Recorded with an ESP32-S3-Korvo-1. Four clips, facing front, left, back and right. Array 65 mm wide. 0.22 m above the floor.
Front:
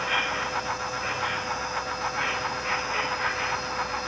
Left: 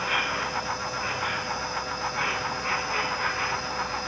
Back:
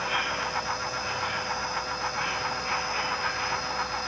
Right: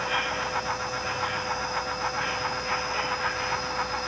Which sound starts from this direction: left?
An insect, at 0.0 s.